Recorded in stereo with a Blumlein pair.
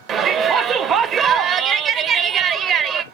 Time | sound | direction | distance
0.1 | a shout | 30° right | 0.6 m